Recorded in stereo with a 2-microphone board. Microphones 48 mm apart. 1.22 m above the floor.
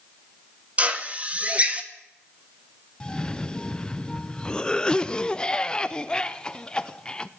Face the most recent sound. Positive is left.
turn(degrees=20)  # may be behind; listen again after turning